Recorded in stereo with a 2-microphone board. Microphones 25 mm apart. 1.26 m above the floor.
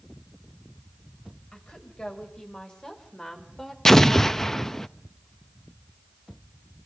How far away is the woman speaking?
About 7.5 m.